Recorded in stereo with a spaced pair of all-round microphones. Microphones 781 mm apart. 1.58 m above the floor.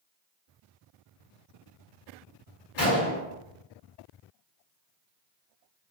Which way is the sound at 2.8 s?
40° left (ahead or behind).